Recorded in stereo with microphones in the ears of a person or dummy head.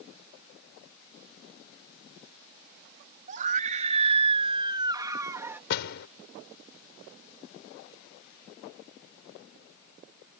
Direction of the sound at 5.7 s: 65° left (ahead or behind).